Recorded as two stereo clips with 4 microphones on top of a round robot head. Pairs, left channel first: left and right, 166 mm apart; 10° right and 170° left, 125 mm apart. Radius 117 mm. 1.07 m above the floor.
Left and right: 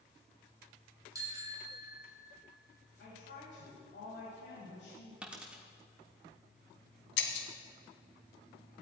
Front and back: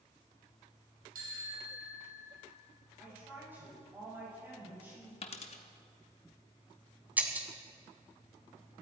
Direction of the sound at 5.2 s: 10° right.